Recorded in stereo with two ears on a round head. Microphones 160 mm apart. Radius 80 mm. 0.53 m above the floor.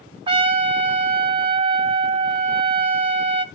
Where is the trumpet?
30° right (ahead or behind), 0.6 m.